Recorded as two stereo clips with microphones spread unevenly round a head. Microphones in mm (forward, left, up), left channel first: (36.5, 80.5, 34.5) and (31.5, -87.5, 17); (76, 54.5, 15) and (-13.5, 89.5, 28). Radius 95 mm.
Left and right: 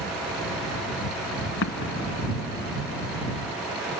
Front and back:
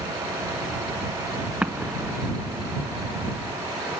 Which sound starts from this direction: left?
An explosion, at 1.6 s.